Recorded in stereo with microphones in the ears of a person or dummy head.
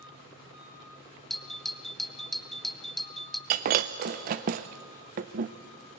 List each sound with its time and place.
1.3 s a doorbell: centre (ahead or behind), 1.0 m
3.5 s breaking glass: 35° right (ahead or behind), 0.6 m